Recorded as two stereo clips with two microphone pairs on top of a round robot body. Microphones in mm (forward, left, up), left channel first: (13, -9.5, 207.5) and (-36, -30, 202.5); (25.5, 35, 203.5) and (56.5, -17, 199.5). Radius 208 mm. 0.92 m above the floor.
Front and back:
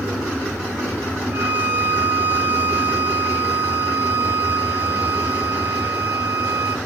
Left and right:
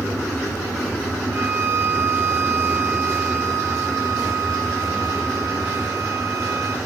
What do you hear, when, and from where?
1.3 s a violin: 100° right, 1.3 m